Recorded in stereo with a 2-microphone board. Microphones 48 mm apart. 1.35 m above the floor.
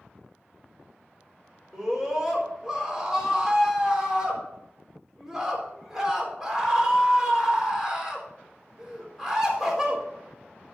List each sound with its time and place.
1.7 s a scream: 10° right (ahead or behind), 4 m